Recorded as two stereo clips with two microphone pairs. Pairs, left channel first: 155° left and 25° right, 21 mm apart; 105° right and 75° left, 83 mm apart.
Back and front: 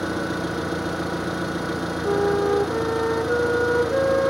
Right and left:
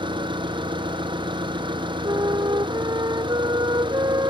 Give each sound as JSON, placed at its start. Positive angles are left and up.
{"t": 0.0, "sound": "an engine running", "azimuth_deg": 60}
{"t": 2.0, "sound": "a flute", "azimuth_deg": 110}